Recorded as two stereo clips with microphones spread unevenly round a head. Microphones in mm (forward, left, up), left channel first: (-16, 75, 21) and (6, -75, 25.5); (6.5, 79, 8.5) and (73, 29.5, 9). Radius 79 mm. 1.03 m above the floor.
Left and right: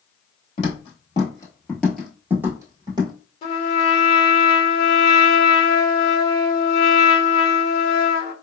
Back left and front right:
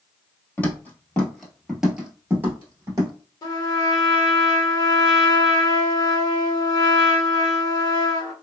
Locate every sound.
0.6 s footsteps: 95° left, 1.2 m; by 3.1 s 45° right, 1.2 m
3.4 s a trumpet: 130° left, 1.0 m